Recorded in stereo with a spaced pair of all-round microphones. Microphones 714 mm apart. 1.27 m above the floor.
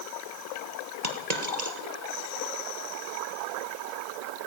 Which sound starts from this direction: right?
A dropped coin, at 1.0 s.